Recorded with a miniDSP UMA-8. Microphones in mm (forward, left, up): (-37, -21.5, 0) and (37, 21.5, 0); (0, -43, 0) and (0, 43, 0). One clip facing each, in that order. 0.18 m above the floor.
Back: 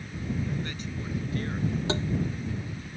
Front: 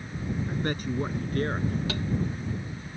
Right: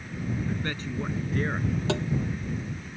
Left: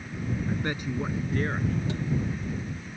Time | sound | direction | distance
0.5 | a man speaking | 30° left | ?
1.9 | tapping | 85° right | ?